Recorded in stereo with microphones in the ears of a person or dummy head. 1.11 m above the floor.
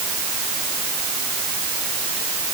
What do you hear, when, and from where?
Only background noise.